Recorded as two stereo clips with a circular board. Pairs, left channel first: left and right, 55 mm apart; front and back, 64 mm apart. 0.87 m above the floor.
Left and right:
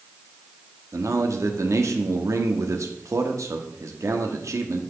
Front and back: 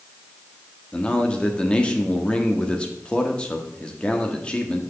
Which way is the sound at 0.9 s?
70° right.